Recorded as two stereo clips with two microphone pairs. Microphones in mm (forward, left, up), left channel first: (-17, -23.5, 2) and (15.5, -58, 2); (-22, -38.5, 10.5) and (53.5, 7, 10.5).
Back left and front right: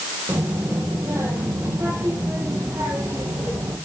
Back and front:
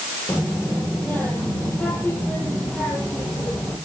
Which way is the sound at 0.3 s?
80° right.